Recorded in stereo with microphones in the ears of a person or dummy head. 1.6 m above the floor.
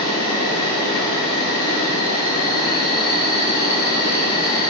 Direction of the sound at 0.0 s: 25° left (ahead or behind).